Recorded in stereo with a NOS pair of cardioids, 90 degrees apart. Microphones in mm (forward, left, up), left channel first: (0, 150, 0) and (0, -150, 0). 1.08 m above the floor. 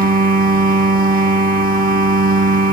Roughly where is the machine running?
Ahead right.